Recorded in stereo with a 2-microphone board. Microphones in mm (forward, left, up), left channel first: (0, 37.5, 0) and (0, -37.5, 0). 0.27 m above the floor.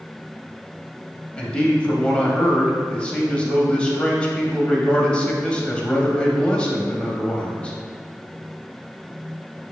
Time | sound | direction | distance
1.4 | a man speaking | 15° left (ahead or behind) | 1.1 m